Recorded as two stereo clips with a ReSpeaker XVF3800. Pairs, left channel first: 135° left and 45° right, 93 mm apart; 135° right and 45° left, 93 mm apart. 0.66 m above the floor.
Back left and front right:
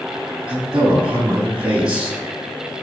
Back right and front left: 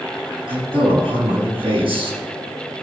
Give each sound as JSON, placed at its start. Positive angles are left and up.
{"t": 0.5, "sound": "a man speaking", "azimuth_deg": 30, "distance_m": 5.0}